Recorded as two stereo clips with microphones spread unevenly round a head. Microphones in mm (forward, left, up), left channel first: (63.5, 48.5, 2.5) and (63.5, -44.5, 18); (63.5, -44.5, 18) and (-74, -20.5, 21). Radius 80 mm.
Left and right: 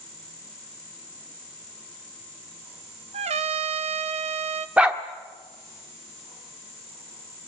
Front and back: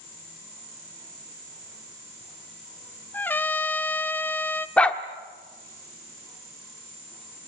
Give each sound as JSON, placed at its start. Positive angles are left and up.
{"t": 3.1, "sound": "a trumpet", "azimuth_deg": -90, "distance_m": 1.0}
{"t": 4.8, "sound": "a dog barking", "azimuth_deg": -80, "distance_m": 1.4}